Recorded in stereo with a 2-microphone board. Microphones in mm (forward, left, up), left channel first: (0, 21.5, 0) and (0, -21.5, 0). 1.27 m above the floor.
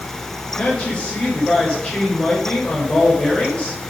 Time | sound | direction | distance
0.6 | a woman speaking | 25° left (ahead or behind) | 6 m